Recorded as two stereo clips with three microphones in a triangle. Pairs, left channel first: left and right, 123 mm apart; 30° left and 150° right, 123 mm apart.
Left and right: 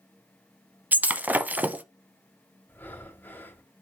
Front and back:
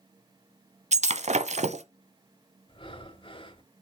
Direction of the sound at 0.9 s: 165° right.